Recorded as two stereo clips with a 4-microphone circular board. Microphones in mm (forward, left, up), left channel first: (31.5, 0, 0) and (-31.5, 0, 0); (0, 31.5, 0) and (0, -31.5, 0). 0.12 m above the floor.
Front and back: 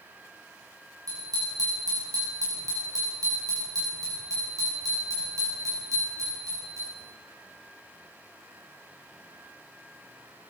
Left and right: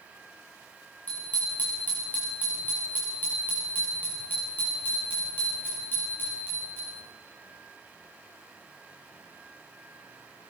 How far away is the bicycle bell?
About 8 m.